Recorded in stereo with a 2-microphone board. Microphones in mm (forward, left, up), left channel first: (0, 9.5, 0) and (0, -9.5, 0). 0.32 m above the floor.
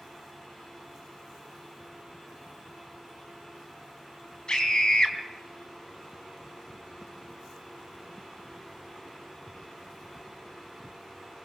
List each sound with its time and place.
4.5 s a scream: 40° left (ahead or behind), 2.5 m